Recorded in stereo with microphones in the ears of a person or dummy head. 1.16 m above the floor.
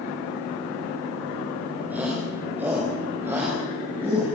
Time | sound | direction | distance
1.9 | a shout | 5° right (ahead or behind) | 4.5 m